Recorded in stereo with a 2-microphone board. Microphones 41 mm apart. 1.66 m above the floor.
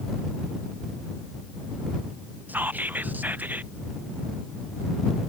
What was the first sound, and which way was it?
Whispering, 45° right (ahead or behind).